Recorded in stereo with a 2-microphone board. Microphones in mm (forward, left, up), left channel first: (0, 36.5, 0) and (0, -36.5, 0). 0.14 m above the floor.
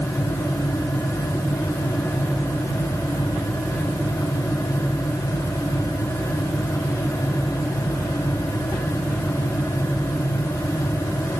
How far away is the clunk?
I don't hear a clunk.